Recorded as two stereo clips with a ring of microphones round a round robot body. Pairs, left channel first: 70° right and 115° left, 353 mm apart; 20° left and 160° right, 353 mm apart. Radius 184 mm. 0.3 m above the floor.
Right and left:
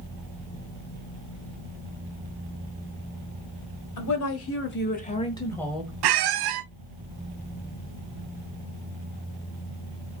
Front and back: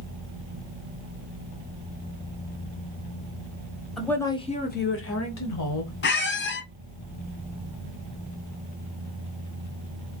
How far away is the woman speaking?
About 1.6 m.